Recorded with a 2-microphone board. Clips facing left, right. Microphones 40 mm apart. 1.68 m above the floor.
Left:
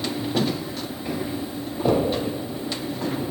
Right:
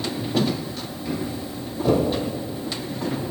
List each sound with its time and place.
1.1 s footsteps: 15° left (ahead or behind), 1.7 m